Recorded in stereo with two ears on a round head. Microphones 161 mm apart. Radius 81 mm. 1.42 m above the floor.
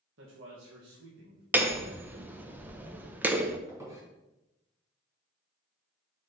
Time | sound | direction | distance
0.2 | a man speaking | 75° right (ahead or behind) | 1.9 m
1.5 | hammering | 10° right (ahead or behind) | 0.7 m
3.7 | a squeak | 15° right (ahead or behind) | 3 m